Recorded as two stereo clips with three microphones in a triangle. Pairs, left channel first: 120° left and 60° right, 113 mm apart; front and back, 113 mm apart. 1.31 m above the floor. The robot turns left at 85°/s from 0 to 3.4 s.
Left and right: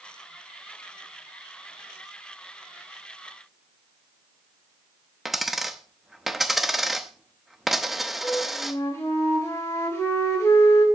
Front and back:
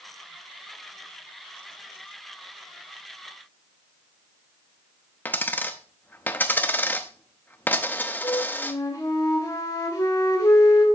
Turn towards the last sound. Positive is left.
turn(degrees=55)